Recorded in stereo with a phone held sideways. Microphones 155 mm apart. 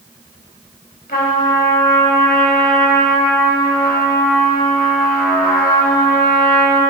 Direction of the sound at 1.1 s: 85° left.